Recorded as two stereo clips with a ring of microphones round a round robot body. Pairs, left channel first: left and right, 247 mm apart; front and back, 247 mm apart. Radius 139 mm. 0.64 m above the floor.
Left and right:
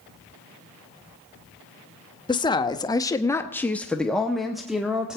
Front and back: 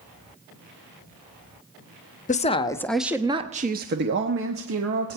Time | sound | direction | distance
2.3 | a woman speaking | 30° left | 0.8 m